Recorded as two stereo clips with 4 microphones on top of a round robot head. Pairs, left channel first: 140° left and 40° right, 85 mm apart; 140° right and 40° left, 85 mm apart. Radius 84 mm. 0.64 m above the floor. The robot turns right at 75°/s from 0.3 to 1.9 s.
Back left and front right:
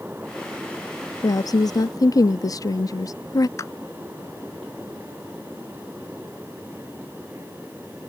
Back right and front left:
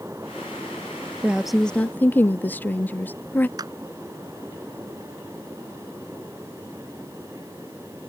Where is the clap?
85° left.